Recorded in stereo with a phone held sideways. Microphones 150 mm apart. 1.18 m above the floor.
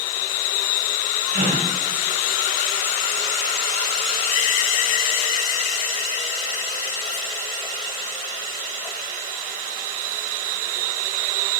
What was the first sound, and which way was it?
A gasp, 75° right (ahead or behind).